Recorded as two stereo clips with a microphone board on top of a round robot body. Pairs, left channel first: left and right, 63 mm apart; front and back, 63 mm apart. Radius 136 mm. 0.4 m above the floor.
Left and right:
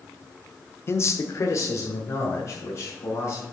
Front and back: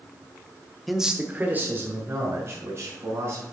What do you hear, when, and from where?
0.9 s a man speaking: 90° left, 0.9 m; by 3.4 s 130° left, 4 m